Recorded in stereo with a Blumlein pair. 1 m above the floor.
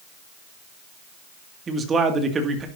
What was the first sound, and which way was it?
A man speaking, 20° right.